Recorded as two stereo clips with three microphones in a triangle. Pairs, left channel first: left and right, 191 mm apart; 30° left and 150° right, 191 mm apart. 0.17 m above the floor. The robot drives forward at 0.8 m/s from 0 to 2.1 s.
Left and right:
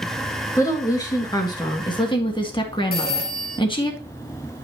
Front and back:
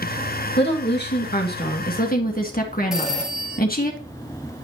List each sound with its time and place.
0.6 s a woman speaking: 20° left, 3 m; by 3.9 s 35° left, 1.8 m
2.9 s a phone ringing: 125° left, 2.5 m